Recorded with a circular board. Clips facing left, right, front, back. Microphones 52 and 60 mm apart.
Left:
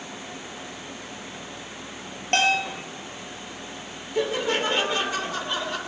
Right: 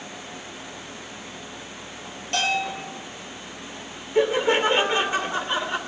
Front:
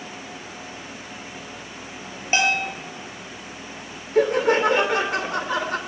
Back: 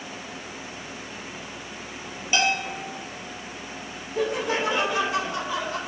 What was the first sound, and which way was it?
A bell, 55° left.